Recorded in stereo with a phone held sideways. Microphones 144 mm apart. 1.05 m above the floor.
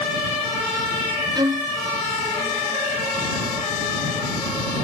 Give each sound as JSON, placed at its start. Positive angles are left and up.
{"t": 1.4, "sound": "a violin", "side_deg": -30}